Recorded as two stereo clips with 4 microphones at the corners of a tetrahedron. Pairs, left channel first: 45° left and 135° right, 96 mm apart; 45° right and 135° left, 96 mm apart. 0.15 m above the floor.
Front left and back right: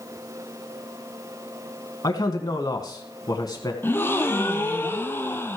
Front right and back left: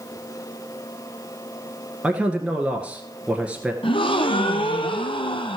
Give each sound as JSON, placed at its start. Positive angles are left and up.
{"t": 2.0, "sound": "a man speaking", "azimuth_deg": 65, "distance_m": 1.4}
{"t": 3.8, "sound": "a gasp", "azimuth_deg": -20, "distance_m": 0.9}